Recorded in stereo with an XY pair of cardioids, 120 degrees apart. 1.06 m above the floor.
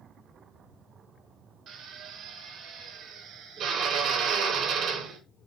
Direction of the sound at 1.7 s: 65° right.